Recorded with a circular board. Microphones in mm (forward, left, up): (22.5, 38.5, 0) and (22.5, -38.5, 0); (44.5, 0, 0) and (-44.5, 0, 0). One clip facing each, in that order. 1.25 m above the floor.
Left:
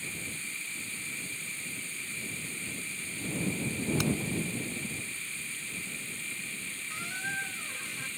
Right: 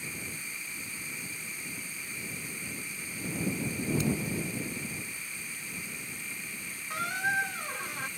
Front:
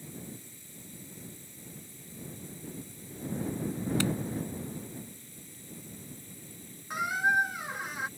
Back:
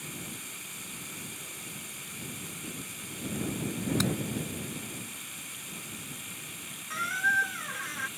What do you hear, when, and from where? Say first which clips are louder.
0.0 s running water: even, back 2 dB; 165° right
4.0 s hammering: even, front 1 dB; 110° left
6.9 s a squeak: right 7 dB, front 1 dB; 80° right